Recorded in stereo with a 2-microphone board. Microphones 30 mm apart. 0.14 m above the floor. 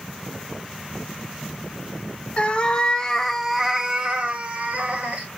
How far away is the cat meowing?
About 0.8 m.